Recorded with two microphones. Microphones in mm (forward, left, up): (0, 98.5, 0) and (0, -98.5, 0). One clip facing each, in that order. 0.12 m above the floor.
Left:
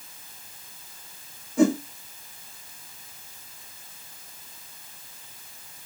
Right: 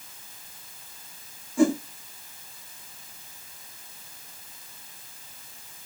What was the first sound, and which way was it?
A whoosh, 20° left (ahead or behind).